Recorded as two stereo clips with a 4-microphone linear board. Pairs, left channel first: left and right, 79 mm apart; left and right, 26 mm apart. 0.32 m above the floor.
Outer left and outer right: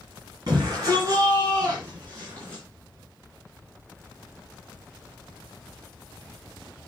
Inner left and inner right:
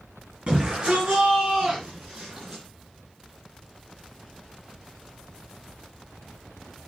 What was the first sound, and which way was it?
A shout, 50° right (ahead or behind).